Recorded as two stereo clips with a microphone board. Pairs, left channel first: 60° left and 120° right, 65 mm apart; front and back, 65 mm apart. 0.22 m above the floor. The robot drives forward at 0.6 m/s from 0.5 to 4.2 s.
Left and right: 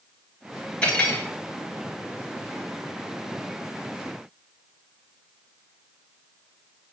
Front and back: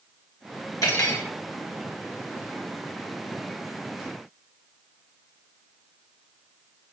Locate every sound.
0.8 s cutlery clinking: 10° right, 2.5 m; by 1.3 s 15° right, 2 m